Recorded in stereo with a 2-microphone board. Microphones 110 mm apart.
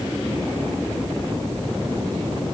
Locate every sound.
Only background noise.